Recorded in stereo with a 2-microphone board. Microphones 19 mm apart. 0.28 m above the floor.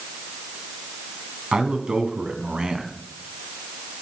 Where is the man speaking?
60° right (ahead or behind), 2 m.